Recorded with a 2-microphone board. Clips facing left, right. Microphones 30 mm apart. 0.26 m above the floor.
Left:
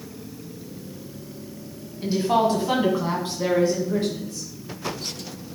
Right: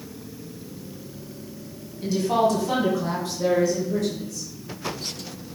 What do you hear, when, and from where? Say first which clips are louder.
2.0 s a woman speaking: left 1 dB; 25° left (ahead or behind), 1.6 m; by 4.5 s 40° left (ahead or behind), 3 m